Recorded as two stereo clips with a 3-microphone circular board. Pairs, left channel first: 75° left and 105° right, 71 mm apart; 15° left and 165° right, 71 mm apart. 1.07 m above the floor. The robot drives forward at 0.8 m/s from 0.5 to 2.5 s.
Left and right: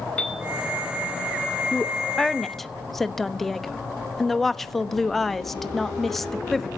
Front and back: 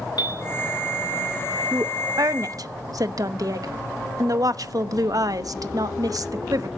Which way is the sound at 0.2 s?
Straight ahead.